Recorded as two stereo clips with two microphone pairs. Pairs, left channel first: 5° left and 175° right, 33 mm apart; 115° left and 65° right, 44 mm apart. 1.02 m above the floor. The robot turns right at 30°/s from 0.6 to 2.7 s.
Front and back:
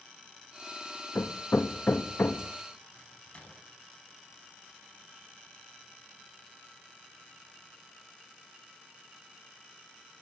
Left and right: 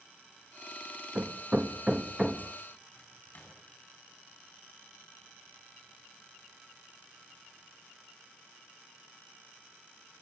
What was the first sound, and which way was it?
Hammering, 15° right.